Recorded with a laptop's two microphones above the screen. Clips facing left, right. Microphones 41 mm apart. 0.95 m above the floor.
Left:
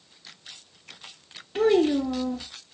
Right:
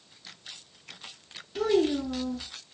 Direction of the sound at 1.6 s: 35° left (ahead or behind).